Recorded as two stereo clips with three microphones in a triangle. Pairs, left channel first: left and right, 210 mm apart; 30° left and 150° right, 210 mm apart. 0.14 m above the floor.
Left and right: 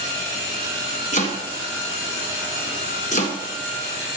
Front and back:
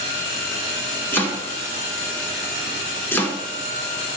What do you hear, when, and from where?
1.1 s chopping: 105° left, 1.4 m